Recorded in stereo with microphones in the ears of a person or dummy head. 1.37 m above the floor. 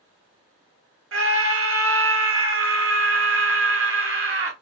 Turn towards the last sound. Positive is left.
turn(degrees=-65)  # may be behind; listen again after turning